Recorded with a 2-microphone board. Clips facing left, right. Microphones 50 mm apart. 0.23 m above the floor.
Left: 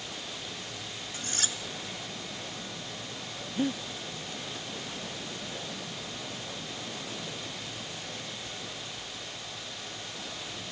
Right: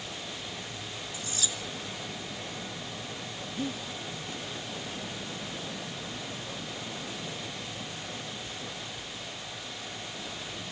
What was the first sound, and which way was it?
Cutlery clinking, 55° left (ahead or behind).